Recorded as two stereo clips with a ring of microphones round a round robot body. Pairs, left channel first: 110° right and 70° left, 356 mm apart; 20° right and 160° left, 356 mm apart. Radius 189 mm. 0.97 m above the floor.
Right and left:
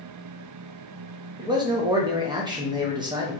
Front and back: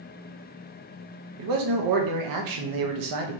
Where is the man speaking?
145° left, 1.0 m.